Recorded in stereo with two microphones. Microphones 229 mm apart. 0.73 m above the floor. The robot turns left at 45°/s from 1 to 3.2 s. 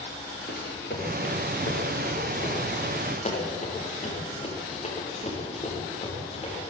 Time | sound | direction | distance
0.5 | running footsteps | 45° left (ahead or behind) | 7 m